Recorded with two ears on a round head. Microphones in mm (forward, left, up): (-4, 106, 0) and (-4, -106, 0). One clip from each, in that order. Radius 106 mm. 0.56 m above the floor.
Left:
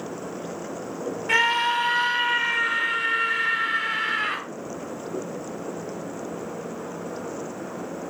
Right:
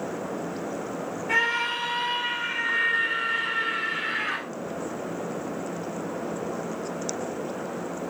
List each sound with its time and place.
1.3 s a scream: 45° left (ahead or behind), 1.5 m